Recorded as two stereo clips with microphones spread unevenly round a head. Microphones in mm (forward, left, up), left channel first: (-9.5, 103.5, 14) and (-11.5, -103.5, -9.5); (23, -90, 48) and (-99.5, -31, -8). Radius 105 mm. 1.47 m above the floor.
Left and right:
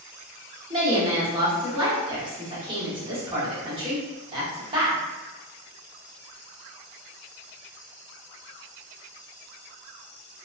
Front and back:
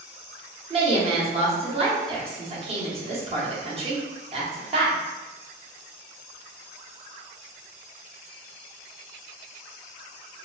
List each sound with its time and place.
0.7 s a woman speaking: 160° right, 0.9 m